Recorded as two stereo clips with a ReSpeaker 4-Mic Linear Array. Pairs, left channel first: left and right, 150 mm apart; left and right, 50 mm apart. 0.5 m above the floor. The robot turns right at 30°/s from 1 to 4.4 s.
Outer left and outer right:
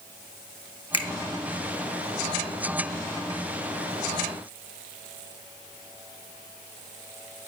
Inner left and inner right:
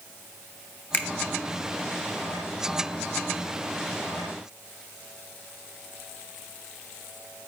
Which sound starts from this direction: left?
A finger snap, at 0.9 s.